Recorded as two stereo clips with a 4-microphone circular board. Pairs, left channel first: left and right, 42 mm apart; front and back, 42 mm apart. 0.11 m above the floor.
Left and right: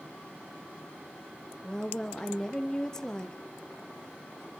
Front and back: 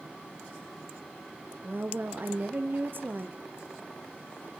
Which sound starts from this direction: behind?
A woman speaking, at 1.6 s.